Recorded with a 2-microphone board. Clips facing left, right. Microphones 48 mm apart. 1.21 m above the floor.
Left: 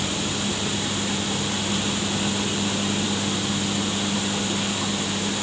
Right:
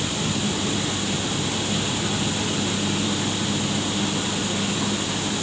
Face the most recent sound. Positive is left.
No sound to turn to.